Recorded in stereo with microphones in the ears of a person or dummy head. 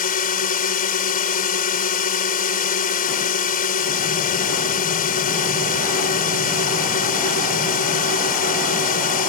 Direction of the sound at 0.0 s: 35° left (ahead or behind).